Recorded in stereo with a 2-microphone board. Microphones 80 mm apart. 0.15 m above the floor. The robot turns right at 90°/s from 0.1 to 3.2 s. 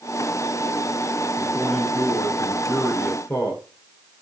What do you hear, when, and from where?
1.4 s a man speaking: 40° right, 1.6 m; by 3.6 s 125° left, 1.6 m